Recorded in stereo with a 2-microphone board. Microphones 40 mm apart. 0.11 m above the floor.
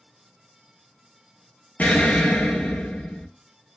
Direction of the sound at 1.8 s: 45° left (ahead or behind).